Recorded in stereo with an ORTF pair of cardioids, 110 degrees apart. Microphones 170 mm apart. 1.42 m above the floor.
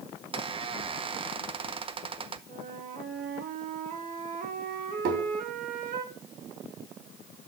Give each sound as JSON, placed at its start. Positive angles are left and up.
{"t": 0.3, "sound": "a squeak", "azimuth_deg": -35, "distance_m": 0.8}
{"t": 2.5, "sound": "a flute", "azimuth_deg": -55, "distance_m": 1.6}
{"t": 5.0, "sound": "tapping", "azimuth_deg": -70, "distance_m": 3.5}